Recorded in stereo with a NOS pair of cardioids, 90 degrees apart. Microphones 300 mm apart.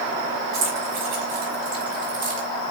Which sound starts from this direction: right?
Keys jangling, at 0.5 s.